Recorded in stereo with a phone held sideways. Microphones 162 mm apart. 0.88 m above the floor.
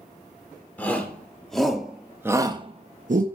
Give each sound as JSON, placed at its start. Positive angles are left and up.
{"t": 0.8, "sound": "a shout", "side_deg": 10, "distance_m": 3.0}